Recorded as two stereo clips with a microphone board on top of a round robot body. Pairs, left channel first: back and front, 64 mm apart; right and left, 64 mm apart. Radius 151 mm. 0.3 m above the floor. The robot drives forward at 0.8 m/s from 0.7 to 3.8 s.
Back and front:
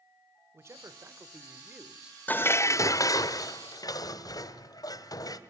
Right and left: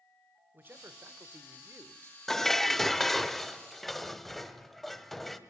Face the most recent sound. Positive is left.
turn(degrees=180)